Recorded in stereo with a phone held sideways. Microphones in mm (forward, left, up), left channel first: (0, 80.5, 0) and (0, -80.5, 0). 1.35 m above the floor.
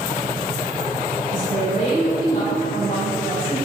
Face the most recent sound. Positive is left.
turn(degrees=55)  # may be behind; listen again after turning